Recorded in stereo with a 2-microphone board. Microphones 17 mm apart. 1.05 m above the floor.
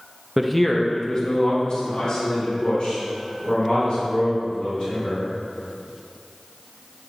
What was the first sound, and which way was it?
A man speaking, 20° right (ahead or behind).